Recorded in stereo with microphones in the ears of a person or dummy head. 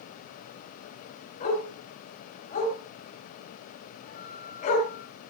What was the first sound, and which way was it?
A dog barking, 45° left (ahead or behind).